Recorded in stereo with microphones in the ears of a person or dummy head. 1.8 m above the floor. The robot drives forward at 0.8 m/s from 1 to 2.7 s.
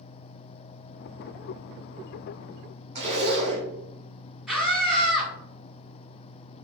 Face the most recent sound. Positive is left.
turn(degrees=-5)  # may be behind; listen again after turning